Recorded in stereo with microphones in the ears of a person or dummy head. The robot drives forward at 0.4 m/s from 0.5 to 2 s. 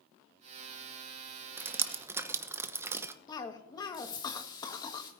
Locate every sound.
1.6 s dripping: 15° right (ahead or behind), 0.9 m
3.3 s a cough: 25° left (ahead or behind), 1.4 m